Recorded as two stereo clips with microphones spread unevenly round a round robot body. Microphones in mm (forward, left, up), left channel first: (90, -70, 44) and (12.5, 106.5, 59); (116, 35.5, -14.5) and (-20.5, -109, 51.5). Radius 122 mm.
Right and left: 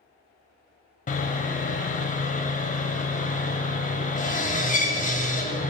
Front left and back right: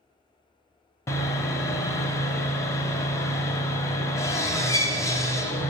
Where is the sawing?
20° right, 0.8 m.